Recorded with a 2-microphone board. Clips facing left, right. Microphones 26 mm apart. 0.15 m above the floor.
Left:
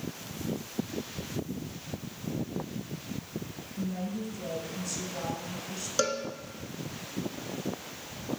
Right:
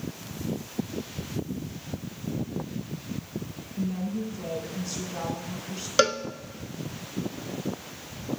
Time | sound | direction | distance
3.8 | a woman speaking | 30° right (ahead or behind) | 1.4 m
6.0 | a cowbell | 50° right (ahead or behind) | 0.5 m